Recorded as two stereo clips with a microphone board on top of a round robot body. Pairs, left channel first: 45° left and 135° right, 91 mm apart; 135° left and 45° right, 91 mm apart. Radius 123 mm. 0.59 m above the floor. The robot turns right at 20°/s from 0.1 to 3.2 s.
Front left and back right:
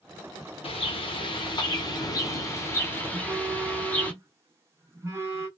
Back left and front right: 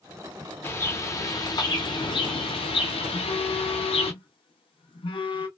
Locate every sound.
0.6 s a bird: 70° left, 0.7 m; by 4.1 s 120° left, 0.7 m
3.1 s a phone buzzing: 160° left, 0.9 m; by 5.5 s 165° left, 0.9 m